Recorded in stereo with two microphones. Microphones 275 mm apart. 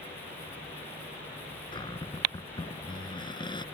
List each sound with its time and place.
1.7 s a cupboard door: 15° left (ahead or behind)